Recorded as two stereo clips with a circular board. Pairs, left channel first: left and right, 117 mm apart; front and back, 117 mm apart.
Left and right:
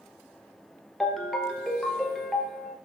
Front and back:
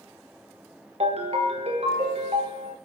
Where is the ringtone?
175° left, 1.5 m.